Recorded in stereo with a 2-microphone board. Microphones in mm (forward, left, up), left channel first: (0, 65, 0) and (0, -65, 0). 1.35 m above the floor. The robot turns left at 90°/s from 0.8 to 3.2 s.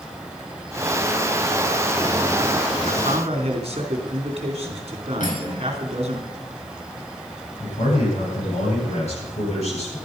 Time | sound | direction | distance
2.9 | a man speaking | 80° right | 3.5 m
5.2 | cutlery clinking | 75° left (ahead or behind) | 5 m
7.6 | a man speaking | 55° left (ahead or behind) | 9.5 m